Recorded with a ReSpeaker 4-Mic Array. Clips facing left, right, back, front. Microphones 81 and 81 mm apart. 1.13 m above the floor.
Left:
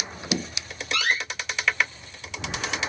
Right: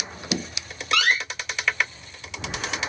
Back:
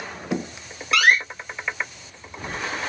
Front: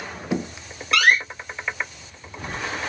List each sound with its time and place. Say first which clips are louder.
0.9 s a door slam: right 4 dB, even; 90° right, 0.7 m